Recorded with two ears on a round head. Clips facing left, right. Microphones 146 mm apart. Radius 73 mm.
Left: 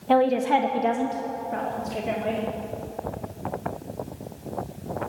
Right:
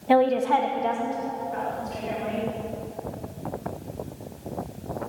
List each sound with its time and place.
0.1 s a woman speaking: 10° right (ahead or behind), 0.7 m; by 2.4 s 60° left (ahead or behind), 2.5 m